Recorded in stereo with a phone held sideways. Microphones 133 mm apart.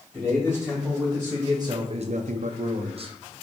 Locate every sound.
0.1 s a man speaking: 5° right (ahead or behind), 1.6 m; by 3.1 s 40° right (ahead or behind), 0.8 m